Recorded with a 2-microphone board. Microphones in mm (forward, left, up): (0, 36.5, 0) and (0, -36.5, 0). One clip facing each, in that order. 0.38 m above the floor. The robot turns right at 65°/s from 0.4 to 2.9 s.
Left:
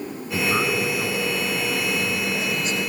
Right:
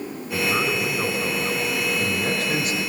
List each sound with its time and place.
0.3 s a man speaking: 160° left, 4 m; by 2.8 s 45° right, 4 m